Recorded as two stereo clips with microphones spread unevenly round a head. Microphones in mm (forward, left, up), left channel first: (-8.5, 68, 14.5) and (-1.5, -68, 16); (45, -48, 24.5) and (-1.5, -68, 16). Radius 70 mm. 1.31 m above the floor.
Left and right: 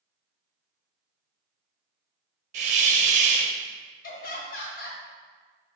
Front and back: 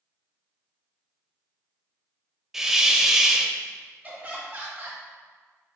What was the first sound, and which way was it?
A hiss, 70° right.